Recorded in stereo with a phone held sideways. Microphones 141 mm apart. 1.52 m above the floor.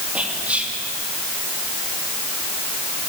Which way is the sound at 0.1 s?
10° right (ahead or behind).